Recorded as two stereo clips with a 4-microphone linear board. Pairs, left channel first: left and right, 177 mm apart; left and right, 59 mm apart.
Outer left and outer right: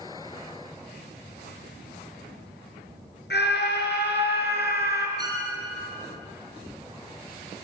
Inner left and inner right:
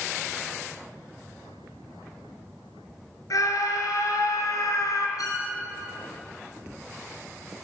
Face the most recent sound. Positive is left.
turn(degrees=75)  # may be behind; listen again after turning